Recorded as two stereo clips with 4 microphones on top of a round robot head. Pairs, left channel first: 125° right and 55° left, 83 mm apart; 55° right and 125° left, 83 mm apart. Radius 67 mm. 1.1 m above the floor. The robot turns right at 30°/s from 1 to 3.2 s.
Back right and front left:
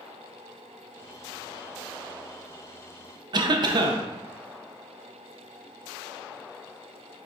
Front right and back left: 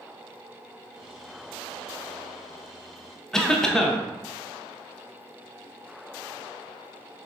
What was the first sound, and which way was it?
A cough, 25° left.